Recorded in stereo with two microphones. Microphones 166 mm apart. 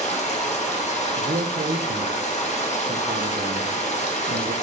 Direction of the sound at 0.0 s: 45° left (ahead or behind).